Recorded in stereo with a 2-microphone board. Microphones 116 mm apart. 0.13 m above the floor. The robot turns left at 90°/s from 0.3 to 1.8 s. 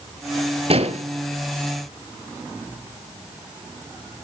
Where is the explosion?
60° right, 0.6 m; by 1.0 s 95° right, 0.6 m.